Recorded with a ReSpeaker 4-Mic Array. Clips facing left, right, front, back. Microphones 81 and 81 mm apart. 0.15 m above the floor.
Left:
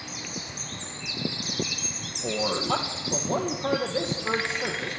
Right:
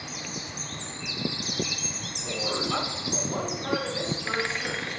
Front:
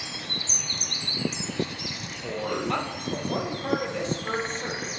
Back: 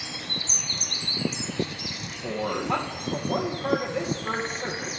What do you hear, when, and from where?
2.2 s a man speaking: 100° left, 3.5 m